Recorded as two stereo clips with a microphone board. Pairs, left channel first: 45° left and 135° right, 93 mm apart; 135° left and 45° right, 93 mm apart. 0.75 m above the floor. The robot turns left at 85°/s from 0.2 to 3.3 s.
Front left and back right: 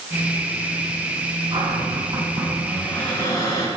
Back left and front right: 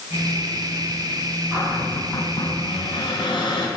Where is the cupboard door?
105° right, 7.5 m; by 3.7 s 100° left, 7.5 m.